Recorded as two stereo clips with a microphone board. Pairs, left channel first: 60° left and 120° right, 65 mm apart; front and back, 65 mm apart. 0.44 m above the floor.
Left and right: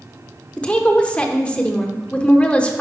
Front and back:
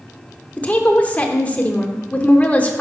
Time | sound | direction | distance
0.6 | a woman speaking | 15° left | 0.7 m